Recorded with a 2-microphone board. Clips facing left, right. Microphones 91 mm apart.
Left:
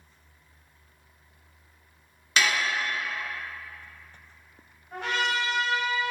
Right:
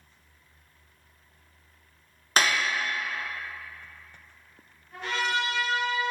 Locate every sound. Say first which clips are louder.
2.4 s dishes clattering: right 1 dB; 40° right (ahead or behind), 0.5 m
4.9 s a trumpet: left 1 dB; 80° left, 2 m